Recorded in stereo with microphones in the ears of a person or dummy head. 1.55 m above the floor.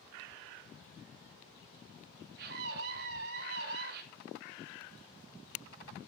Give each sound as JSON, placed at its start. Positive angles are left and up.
{"t": 2.4, "sound": "a scream", "side_deg": -70, "distance_m": 3.0}